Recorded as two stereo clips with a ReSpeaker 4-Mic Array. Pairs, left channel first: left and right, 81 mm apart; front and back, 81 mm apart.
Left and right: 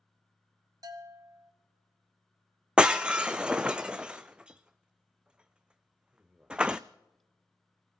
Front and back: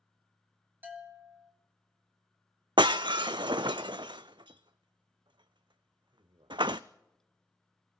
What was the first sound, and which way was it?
A bell, 120° right.